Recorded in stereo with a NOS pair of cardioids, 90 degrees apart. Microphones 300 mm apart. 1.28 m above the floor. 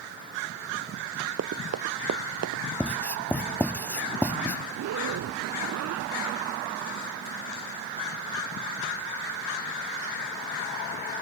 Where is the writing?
5° left.